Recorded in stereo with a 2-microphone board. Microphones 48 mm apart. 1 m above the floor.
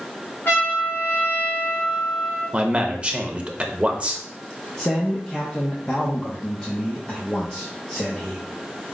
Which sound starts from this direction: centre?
A man speaking, at 4.8 s.